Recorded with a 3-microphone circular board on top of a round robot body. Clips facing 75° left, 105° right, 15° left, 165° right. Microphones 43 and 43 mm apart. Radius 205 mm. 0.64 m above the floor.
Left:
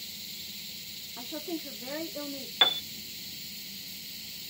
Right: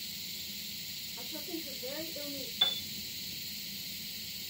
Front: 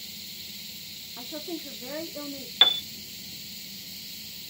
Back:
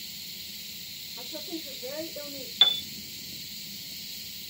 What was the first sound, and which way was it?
A woman speaking, 40° left.